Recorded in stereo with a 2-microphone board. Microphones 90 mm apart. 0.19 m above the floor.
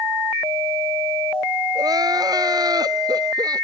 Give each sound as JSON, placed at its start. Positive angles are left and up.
{"t": 1.8, "sound": "crying", "side_deg": -50}